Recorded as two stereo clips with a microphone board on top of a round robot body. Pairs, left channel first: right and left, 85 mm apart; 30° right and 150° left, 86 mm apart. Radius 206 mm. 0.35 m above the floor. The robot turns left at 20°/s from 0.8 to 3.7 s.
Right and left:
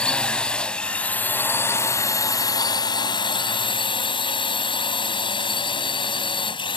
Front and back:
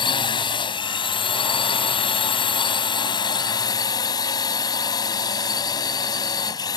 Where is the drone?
10° right; by 6.8 s 70° right.